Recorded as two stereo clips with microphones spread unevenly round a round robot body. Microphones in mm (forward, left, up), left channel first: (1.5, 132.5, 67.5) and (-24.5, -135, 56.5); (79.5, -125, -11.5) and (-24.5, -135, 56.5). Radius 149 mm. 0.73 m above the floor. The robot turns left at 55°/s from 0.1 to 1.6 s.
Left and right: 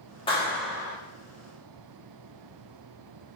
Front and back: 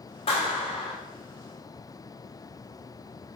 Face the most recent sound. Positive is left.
turn(degrees=-60)